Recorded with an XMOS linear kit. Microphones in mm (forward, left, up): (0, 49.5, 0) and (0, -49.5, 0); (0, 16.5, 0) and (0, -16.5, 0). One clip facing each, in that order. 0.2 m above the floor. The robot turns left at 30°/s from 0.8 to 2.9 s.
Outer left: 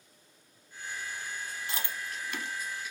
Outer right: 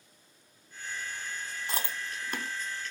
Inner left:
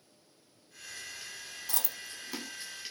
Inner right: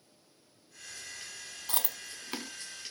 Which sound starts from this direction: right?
Chewing, at 1.7 s.